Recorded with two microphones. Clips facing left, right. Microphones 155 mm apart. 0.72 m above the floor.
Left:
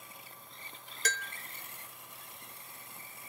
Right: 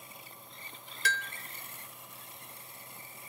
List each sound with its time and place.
1.1 s a bell: 40° left (ahead or behind), 0.8 m